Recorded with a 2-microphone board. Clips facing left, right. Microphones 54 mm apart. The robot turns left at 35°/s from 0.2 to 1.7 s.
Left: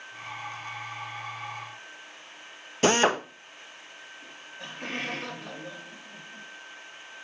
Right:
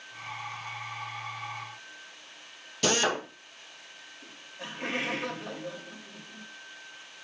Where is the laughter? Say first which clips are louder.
Right 1 dB; 5° right (ahead or behind), 2.5 m.